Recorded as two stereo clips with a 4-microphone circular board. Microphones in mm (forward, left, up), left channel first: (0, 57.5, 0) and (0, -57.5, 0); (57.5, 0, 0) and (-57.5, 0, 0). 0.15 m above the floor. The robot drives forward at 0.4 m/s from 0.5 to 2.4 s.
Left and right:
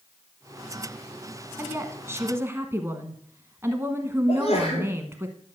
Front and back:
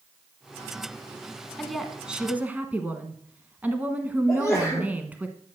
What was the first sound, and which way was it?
A woman speaking, 80° right.